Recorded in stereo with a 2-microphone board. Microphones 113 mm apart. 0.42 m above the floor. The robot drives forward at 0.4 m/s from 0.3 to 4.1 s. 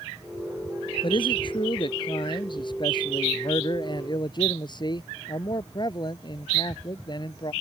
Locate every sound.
1.0 s a man speaking: 45° left (ahead or behind); by 7.5 s 40° left (ahead or behind)